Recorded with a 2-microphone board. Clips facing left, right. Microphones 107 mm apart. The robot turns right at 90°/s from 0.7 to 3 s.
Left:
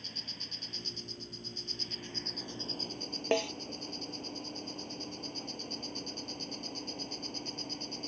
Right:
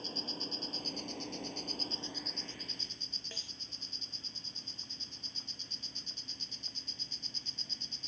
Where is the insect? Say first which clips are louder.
Right 7 dB; 145° right; by 8.1 s 60° left.